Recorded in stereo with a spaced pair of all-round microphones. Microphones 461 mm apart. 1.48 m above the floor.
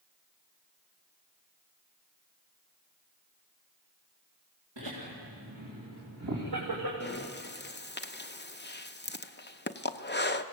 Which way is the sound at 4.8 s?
70° right (ahead or behind).